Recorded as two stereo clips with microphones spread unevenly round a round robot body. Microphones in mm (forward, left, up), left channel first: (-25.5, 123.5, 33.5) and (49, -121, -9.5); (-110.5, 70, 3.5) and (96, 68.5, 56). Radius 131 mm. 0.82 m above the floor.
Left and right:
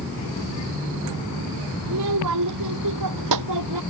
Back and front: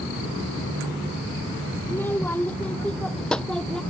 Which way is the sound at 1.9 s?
95° right.